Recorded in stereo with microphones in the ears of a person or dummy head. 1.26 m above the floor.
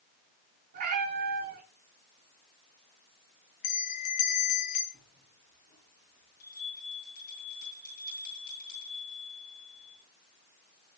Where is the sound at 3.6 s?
45° left (ahead or behind), 1.5 m.